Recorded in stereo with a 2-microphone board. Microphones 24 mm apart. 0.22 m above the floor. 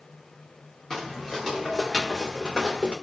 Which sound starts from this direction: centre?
Footsteps, at 0.9 s.